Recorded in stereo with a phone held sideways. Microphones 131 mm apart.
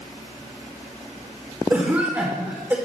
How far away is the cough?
About 2.0 m.